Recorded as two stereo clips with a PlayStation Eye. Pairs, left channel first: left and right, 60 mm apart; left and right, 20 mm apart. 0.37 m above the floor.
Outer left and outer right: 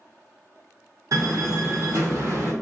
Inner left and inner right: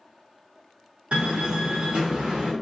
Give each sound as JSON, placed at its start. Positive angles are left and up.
{"t": 1.1, "sound": "a door slam", "side_deg": -65, "distance_m": 1.9}